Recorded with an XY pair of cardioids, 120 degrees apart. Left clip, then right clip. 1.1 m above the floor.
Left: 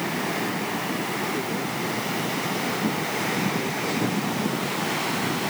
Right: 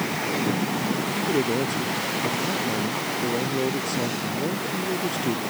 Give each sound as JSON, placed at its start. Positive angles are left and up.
{"t": 1.2, "sound": "a man speaking", "azimuth_deg": -50}